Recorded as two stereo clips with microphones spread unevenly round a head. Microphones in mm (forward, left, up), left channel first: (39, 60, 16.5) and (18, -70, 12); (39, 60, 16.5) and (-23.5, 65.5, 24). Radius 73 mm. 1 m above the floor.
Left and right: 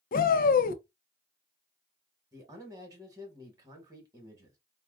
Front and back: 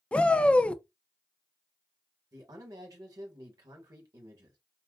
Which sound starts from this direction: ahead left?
A shout, at 0.1 s.